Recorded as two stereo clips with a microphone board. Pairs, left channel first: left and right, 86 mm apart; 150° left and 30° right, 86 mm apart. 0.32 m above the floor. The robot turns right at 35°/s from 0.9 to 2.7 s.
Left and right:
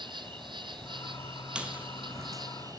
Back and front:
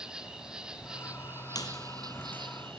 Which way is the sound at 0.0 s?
110° right.